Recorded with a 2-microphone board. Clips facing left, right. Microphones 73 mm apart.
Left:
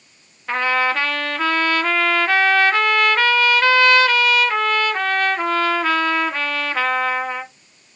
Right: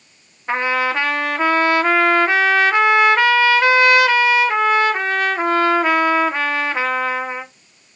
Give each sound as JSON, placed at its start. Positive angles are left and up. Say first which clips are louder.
{"t": 0.5, "sound": "a trumpet", "louder": "even", "side_deg": -20, "distance_m": 0.9}